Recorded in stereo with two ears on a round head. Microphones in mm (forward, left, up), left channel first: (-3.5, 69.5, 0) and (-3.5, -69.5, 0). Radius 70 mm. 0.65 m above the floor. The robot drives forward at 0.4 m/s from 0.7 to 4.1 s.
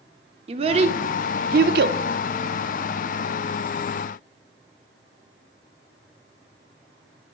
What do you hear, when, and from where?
0.5 s a child speaking: 40° right (ahead or behind), 0.7 m; by 2.0 s 75° right (ahead or behind), 0.5 m